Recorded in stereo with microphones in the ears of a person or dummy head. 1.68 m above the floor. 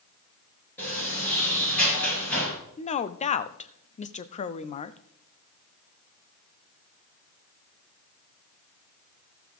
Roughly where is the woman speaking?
Left.